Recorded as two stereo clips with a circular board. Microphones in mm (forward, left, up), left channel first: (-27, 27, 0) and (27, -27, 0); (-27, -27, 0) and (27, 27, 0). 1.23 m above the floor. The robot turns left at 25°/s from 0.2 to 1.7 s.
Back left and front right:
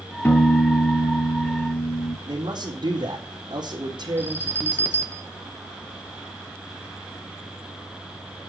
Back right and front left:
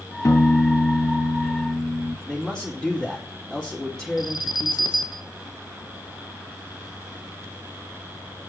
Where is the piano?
175° right, 2 m; by 2.2 s 150° left, 2 m.